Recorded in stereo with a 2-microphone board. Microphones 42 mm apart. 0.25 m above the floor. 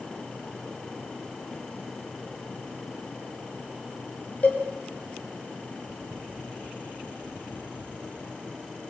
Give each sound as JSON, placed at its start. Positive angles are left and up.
{"t": 4.4, "sound": "a cowbell", "side_deg": 35, "distance_m": 5.0}